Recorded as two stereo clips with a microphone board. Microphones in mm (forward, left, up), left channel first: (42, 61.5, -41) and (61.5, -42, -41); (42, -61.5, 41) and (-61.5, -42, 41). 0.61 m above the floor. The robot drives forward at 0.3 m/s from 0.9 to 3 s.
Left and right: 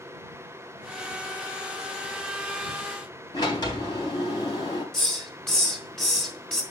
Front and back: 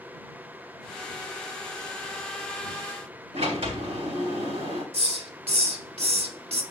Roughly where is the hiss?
Behind.